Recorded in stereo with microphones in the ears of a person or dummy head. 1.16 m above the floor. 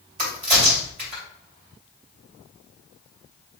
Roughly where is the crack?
Right.